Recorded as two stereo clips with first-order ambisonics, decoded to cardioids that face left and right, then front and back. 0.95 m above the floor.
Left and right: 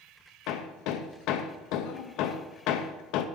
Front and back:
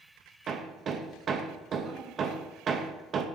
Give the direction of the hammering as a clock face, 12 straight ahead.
8 o'clock.